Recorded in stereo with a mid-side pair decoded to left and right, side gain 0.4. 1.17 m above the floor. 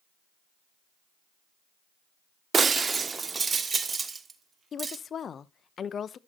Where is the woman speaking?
55° left, 0.8 m.